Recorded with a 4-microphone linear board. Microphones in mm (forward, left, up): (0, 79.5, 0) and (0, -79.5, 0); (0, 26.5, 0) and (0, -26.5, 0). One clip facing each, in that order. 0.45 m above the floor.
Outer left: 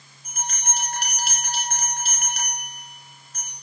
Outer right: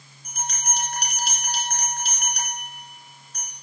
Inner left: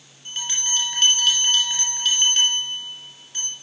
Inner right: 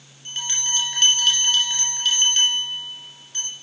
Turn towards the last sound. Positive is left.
turn(degrees=5)  # may be behind; listen again after turning